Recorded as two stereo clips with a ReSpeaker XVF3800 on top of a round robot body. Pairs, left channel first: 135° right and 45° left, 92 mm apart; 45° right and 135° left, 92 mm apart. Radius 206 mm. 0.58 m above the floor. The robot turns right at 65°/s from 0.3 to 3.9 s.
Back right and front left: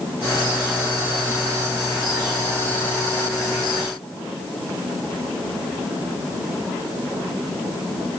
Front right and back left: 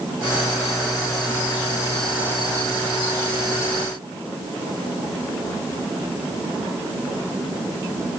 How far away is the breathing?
No breathing in this recording.